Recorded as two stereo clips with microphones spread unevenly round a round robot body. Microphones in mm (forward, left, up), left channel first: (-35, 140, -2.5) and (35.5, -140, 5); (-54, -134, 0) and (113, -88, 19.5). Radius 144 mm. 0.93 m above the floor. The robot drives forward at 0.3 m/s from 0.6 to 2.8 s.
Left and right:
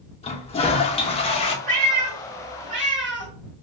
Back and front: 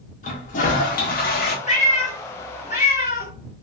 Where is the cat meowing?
115° right, 2.5 m; by 3.3 s 120° right, 3 m.